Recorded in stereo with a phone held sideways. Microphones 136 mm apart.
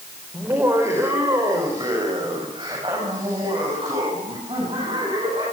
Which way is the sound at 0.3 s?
15° right (ahead or behind).